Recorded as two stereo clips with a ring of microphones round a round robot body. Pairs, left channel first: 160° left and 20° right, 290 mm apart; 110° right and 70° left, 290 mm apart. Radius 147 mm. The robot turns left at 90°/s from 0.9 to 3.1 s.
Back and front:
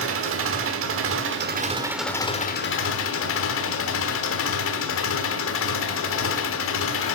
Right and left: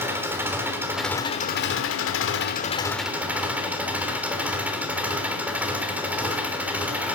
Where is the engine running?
10° right, 1.1 m; by 7.2 s 150° left, 1.1 m.